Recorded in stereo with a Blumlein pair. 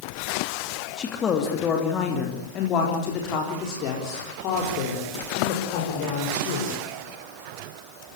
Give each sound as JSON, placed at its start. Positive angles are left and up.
{"t": 1.0, "sound": "a man speaking", "azimuth_deg": 20, "distance_m": 2.5}